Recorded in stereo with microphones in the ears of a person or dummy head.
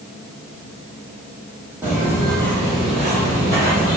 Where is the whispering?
No whispering in this recording.